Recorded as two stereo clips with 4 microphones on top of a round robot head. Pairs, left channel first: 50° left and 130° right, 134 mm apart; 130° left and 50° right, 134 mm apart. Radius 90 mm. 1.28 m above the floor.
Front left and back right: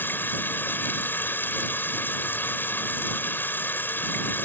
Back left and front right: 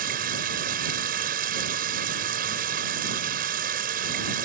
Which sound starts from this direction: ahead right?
Running water, at 0.0 s.